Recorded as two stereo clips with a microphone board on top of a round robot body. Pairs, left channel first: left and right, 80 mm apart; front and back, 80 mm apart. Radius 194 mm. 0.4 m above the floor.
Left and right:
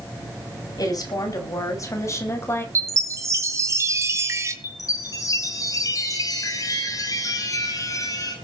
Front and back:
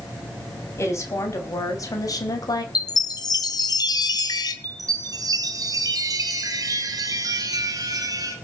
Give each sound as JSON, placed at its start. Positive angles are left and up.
{"t": 0.8, "sound": "a woman speaking", "azimuth_deg": 55, "distance_m": 5.0}
{"t": 2.8, "sound": "a chime", "azimuth_deg": -35, "distance_m": 1.9}
{"t": 4.6, "sound": "a chime", "azimuth_deg": 135, "distance_m": 2.5}